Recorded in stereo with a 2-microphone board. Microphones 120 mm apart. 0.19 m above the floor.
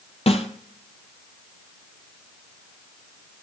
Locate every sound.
0.3 s a snare drum: 55° left (ahead or behind), 0.8 m